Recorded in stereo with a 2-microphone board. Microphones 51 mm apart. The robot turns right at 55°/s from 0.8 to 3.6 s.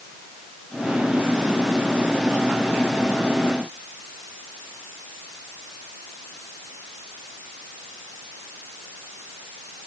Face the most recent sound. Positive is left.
No sound to turn to.